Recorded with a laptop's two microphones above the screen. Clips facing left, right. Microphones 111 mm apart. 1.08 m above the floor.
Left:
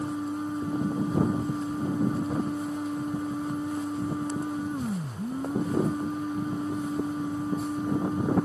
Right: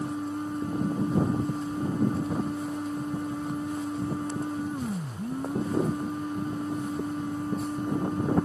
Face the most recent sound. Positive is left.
turn(degrees=5)  # may be behind; listen again after turning